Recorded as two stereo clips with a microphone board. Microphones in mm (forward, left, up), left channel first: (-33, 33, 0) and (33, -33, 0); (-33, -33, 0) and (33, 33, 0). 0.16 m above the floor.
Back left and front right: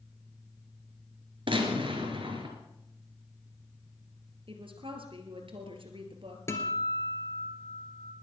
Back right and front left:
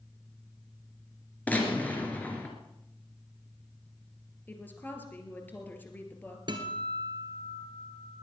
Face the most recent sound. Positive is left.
turn(degrees=75)